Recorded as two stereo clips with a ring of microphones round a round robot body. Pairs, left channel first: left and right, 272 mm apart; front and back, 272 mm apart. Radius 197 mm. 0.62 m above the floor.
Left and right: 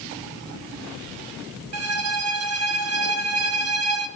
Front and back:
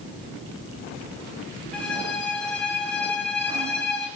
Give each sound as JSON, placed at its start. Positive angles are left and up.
{"t": 1.7, "sound": "a violin", "azimuth_deg": -85, "distance_m": 0.7}